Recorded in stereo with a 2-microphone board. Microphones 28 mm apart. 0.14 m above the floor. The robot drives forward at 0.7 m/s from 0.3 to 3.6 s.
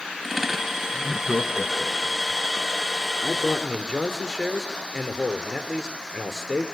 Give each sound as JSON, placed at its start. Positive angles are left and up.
{"t": 0.9, "sound": "laughter", "side_deg": -5, "distance_m": 1.1}
{"t": 3.2, "sound": "a man speaking", "side_deg": -5, "distance_m": 2.5}